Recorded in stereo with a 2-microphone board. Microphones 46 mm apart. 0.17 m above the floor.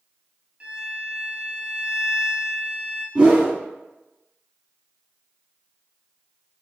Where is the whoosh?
20° right (ahead or behind), 1.1 m.